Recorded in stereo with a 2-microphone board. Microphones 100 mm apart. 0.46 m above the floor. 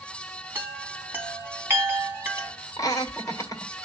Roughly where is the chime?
Right.